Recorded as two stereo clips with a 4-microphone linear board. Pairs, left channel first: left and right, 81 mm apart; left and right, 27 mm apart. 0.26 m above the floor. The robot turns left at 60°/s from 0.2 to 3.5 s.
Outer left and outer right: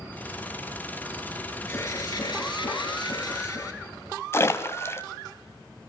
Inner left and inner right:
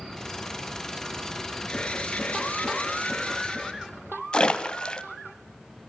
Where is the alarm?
145° left, 4.5 m; by 3.8 s 35° left, 4.5 m.